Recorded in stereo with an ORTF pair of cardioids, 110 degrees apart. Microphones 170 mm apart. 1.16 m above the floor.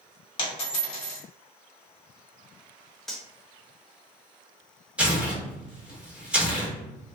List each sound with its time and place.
0.4 s a dropped coin: 35° left, 1.6 m
3.1 s cutlery clinking: 5° left, 0.7 m
5.0 s tearing paper: 5° right, 1.4 m